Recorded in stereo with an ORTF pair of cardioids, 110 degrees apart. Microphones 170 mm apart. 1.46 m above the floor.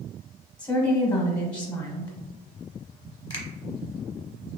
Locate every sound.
0.6 s a woman speaking: 20° left, 0.9 m
3.3 s a finger snap: 25° left, 0.9 m